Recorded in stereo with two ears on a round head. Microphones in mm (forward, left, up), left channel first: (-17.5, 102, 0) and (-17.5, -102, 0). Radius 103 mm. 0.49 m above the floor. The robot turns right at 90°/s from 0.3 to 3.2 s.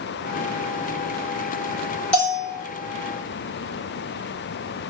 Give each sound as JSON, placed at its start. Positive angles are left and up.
{"t": 2.1, "sound": "a bell", "azimuth_deg": 5, "distance_m": 1.2}